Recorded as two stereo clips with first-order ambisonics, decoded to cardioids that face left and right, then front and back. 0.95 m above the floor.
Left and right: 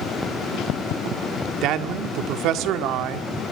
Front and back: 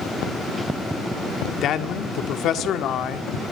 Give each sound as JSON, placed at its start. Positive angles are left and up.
{"t": 1.6, "sound": "a man speaking", "azimuth_deg": -50, "distance_m": 1.8}